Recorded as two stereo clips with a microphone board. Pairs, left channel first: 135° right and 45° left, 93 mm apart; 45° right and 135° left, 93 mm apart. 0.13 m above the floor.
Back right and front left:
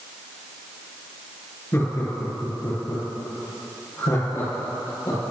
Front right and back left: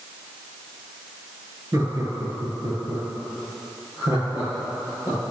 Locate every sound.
1.7 s laughter: 175° left, 2.5 m; by 5.2 s 170° right, 4 m